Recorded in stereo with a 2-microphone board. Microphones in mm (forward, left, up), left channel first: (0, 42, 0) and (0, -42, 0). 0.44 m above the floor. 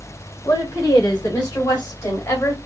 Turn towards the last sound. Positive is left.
turn(degrees=30)  # may be behind; listen again after turning